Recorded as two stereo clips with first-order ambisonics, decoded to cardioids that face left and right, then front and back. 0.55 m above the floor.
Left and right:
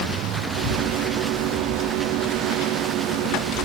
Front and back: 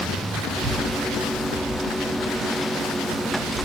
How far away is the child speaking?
About 3.5 m.